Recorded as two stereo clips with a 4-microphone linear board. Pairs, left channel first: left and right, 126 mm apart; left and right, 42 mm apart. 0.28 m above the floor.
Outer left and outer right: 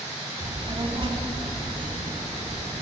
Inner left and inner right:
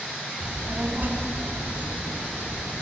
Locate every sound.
0.4 s a child speaking: 40° right (ahead or behind), 0.9 m; by 2.8 s 45° right (ahead or behind), 2.5 m